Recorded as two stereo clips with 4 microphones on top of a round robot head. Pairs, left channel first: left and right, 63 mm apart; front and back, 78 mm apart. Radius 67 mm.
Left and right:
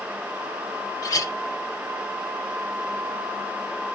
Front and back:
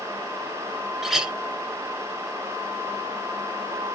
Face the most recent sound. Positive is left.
turn(degrees=95)